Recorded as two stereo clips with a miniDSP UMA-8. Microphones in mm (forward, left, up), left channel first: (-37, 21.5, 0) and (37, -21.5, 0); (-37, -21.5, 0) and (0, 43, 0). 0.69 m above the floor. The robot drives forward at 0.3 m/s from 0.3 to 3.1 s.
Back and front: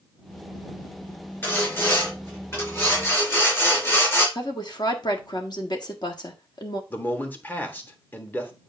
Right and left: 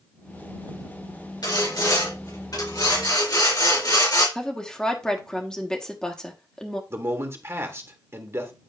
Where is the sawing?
145° right, 4 m; by 4.2 s 150° right, 4.5 m.